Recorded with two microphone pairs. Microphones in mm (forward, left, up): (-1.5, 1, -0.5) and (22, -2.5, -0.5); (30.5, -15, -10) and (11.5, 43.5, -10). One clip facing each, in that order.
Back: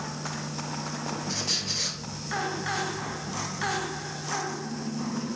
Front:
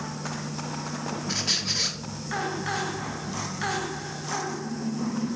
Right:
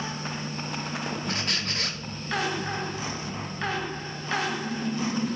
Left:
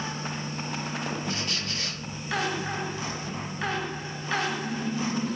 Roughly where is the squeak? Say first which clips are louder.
Front 3 dB, right 2 dB; right.